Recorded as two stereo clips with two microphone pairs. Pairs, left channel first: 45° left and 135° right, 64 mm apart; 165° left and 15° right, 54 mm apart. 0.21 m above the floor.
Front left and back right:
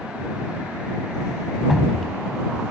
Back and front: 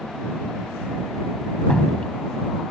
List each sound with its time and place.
1.7 s dripping: 145° left